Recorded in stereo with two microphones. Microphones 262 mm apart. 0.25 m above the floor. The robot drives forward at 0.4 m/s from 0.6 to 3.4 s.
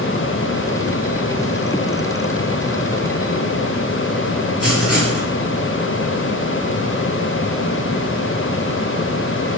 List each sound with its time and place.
4.6 s writing: 60° left (ahead or behind), 5.5 m